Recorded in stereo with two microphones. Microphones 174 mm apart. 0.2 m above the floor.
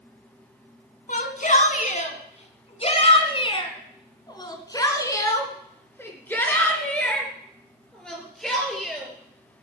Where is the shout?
50° left (ahead or behind), 2 m; by 9.1 s centre (ahead or behind), 4 m.